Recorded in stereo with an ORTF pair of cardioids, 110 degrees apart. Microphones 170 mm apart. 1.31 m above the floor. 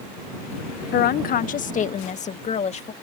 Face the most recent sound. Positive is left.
turn(degrees=40)